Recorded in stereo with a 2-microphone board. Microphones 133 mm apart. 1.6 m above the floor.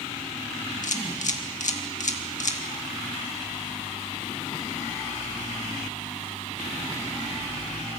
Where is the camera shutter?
70° left (ahead or behind), 1.9 m.